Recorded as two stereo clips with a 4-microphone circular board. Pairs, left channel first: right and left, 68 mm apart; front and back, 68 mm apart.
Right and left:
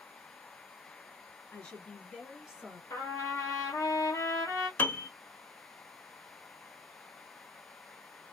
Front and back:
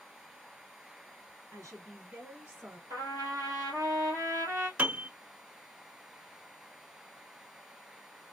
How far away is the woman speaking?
About 2 m.